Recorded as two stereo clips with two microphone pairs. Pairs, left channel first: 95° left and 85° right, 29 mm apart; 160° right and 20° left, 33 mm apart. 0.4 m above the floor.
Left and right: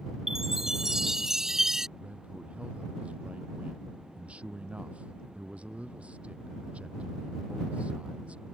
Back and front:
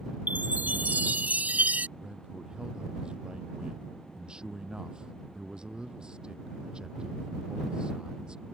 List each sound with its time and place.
0.3 s a chime: 10° right
2.0 s a man speaking: 40° right